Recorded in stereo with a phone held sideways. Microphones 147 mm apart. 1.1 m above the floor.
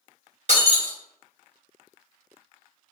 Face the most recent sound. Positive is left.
turn(degrees=-55)  # may be behind; listen again after turning